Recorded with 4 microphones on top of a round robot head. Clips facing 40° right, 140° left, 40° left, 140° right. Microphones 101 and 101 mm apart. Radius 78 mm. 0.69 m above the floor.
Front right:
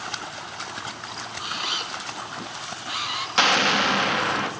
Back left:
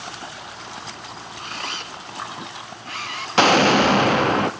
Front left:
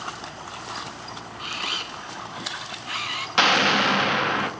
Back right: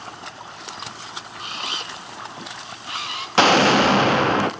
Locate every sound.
1.4 s a camera shutter: 105° right, 1.3 m
3.4 s an explosion: 175° left, 0.7 m